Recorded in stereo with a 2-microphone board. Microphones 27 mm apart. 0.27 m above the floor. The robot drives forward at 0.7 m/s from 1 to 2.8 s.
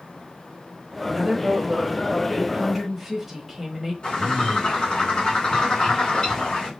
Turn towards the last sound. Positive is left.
turn(degrees=25)  # may be behind; listen again after turning